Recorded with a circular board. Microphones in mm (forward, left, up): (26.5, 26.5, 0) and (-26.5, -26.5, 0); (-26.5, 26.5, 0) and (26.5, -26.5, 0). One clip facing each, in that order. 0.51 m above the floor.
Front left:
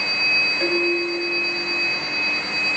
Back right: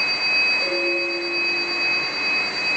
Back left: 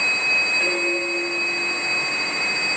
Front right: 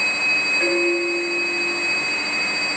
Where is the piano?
25° left, 3.5 m.